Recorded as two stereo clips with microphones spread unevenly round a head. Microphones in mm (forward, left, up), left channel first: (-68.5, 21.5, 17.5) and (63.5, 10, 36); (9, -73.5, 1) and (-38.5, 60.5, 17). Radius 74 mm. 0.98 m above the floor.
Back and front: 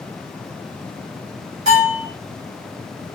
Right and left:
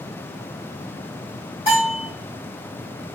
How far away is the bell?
About 2 m.